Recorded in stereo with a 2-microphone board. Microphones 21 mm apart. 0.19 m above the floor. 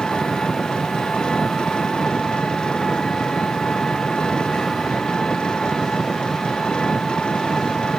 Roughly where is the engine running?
Left.